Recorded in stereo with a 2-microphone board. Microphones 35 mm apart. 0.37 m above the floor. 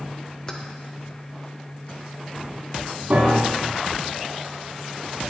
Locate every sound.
0.5 s keys jangling: 20° left (ahead or behind), 0.7 m
3.1 s a piano: 50° right (ahead or behind), 3 m